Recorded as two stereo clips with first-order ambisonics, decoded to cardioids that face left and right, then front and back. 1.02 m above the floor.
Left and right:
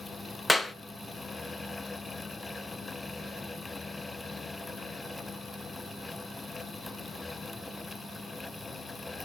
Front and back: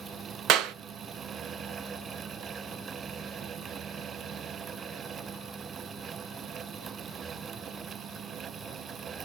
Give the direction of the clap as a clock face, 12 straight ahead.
6 o'clock.